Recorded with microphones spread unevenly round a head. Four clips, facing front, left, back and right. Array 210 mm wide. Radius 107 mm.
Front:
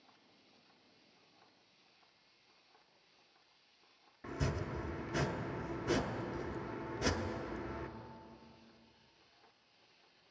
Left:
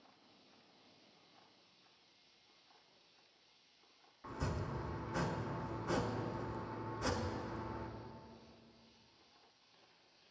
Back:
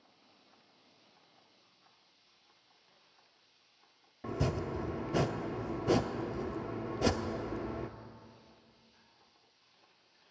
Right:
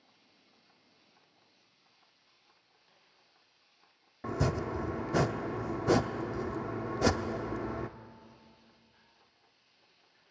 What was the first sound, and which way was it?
Chopping, 120° right.